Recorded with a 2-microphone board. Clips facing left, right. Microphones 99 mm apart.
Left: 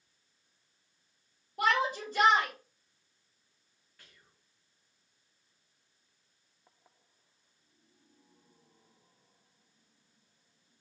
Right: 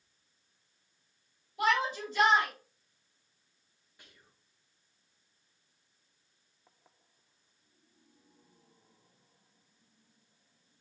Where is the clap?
I don't hear a clap.